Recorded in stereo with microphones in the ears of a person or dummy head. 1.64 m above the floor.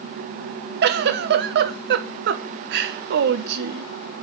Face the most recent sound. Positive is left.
turn(degrees=-60)  # may be behind; listen again after turning